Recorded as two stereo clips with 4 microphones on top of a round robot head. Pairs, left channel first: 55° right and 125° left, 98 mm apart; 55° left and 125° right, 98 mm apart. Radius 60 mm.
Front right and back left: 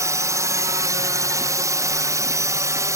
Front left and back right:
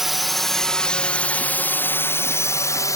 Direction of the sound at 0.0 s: 150° left.